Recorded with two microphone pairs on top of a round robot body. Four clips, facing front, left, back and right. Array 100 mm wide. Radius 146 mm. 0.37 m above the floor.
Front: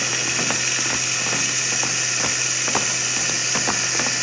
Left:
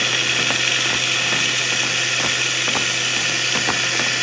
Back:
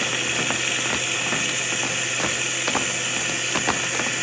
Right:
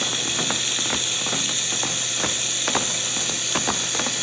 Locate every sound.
0.0 s running water: 80° left, 1.2 m